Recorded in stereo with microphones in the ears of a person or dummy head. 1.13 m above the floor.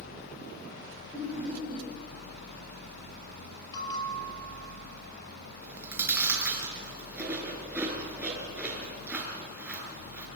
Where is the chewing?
10° right (ahead or behind), 4.5 m.